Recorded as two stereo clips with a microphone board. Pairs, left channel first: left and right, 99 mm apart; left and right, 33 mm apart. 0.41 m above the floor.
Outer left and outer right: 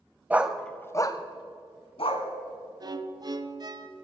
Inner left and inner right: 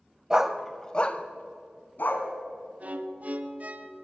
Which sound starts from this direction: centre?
A dog barking, at 0.3 s.